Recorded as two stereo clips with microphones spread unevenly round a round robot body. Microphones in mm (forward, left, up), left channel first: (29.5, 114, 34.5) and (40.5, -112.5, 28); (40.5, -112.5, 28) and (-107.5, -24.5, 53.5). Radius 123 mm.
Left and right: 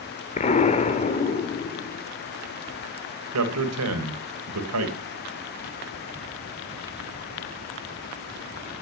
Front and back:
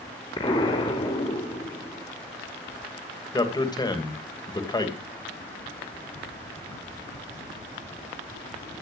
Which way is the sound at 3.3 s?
95° right.